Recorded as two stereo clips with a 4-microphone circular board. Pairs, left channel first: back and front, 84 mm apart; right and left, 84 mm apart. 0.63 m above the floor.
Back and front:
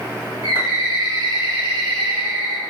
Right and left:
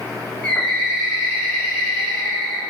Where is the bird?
15° right, 0.8 m.